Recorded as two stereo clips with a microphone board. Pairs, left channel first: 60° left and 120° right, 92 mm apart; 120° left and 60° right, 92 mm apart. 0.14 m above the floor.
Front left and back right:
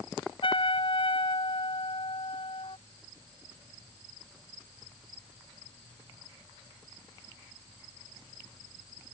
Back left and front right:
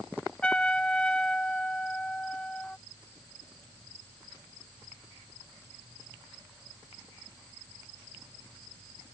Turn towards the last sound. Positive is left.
turn(degrees=40)